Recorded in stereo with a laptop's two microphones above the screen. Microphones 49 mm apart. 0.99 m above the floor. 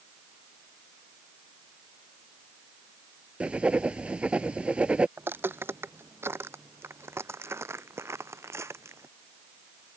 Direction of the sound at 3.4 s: 25° right (ahead or behind).